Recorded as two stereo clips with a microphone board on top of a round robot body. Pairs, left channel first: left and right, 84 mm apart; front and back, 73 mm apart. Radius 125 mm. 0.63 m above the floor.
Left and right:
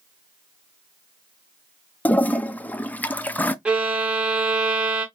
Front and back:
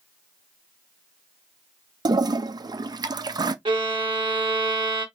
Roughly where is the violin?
Behind.